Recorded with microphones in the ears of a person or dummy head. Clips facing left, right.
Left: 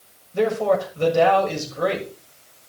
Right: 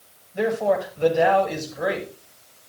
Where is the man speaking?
80° left, 5.5 m.